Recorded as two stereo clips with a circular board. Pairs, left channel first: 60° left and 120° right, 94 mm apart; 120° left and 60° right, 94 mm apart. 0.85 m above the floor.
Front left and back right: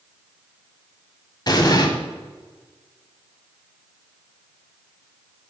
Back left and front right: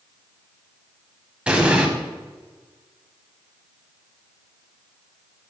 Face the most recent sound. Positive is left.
turn(degrees=15)